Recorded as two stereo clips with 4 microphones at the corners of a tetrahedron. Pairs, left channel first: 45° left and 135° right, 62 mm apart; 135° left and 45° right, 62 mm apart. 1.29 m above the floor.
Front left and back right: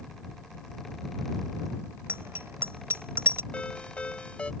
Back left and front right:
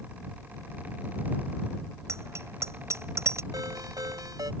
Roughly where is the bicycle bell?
Right.